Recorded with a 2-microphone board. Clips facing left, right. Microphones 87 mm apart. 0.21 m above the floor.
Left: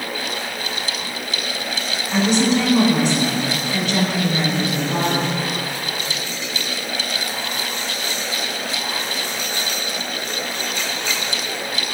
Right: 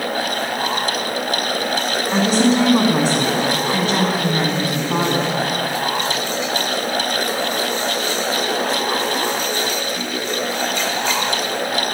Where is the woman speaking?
45° right (ahead or behind), 1.7 m.